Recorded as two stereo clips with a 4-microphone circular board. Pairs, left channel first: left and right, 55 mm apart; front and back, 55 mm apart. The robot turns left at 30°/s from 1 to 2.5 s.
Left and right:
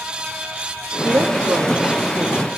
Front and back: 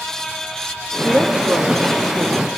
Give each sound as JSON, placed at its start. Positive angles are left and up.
{"t": 1.0, "sound": "a woman speaking", "azimuth_deg": -115, "distance_m": 1.7}